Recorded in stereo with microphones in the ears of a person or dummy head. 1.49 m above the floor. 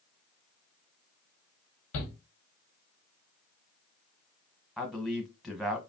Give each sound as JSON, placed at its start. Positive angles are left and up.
{"t": 1.9, "sound": "a shout", "side_deg": 70, "distance_m": 0.9}
{"t": 4.8, "sound": "a man speaking", "side_deg": 0, "distance_m": 0.8}